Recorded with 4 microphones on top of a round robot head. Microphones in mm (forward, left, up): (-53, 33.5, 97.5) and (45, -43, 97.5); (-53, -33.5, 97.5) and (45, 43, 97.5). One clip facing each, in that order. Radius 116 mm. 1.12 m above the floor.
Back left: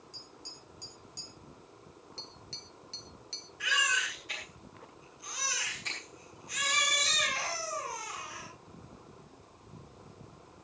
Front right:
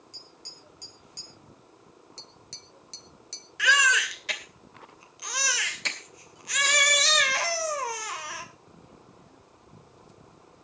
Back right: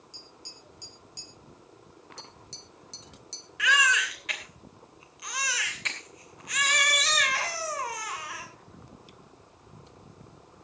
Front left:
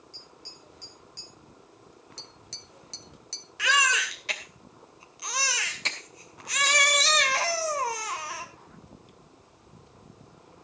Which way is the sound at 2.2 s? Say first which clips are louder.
Back left 1 dB, back right 2 dB; 10° left.